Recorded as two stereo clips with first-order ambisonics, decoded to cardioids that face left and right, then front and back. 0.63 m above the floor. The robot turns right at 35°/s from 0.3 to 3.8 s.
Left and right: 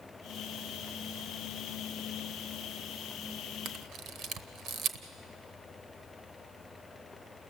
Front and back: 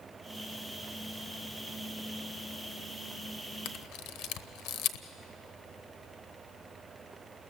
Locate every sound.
3.6 s a camera shutter: 40° right, 1.0 m; by 5.0 s 35° right, 1.0 m